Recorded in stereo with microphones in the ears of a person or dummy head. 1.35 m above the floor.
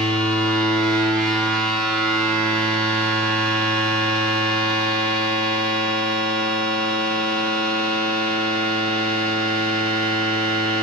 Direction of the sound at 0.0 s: 5° left (ahead or behind).